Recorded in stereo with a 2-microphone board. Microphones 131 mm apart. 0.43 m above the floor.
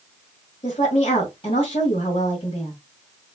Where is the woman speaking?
45° left (ahead or behind), 2.5 m.